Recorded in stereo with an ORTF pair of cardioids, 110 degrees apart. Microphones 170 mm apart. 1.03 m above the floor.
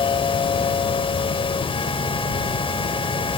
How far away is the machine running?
About 1.8 m.